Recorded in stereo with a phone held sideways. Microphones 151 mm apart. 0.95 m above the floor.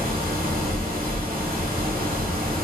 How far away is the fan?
About 1.1 m.